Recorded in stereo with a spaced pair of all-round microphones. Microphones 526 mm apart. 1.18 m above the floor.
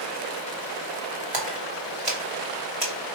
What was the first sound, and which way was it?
A splash, 70° right (ahead or behind).